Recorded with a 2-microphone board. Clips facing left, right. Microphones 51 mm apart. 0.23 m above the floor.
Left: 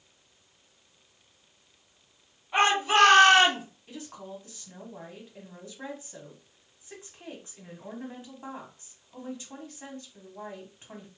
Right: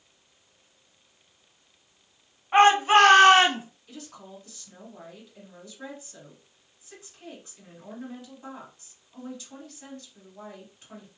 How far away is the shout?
About 1.8 m.